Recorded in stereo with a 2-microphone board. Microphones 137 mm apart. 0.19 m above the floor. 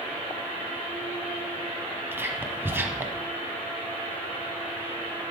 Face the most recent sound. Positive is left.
turn(degrees=-15)  # may be behind; listen again after turning